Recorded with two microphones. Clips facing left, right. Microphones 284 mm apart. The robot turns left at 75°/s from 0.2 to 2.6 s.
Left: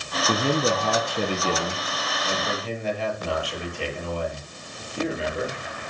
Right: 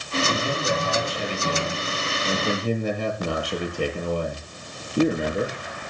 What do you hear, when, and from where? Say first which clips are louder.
0.3 s a man speaking: left 7 dB; 125° left, 6 m; by 5.6 s 50° right, 6 m